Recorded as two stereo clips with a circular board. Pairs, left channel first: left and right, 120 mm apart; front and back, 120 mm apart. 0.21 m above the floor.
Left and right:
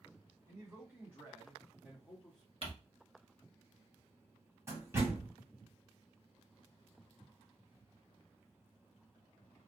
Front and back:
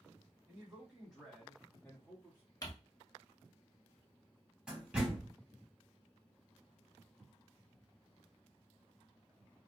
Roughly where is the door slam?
Right.